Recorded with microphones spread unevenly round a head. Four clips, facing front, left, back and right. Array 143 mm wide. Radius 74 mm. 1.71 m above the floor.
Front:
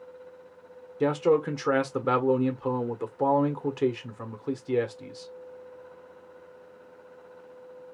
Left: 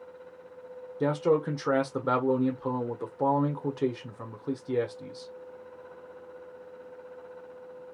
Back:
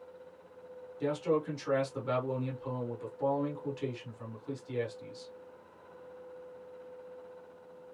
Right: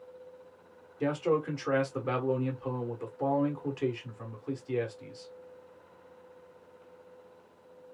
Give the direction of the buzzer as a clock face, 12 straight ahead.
No buzzer in this recording.